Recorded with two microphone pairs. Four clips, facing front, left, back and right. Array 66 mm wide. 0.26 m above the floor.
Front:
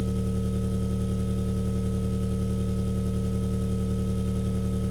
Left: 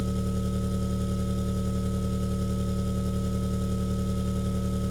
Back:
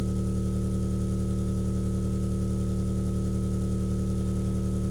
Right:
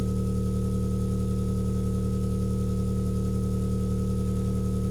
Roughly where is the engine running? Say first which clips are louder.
Right 1 dB, front 1 dB; ahead left.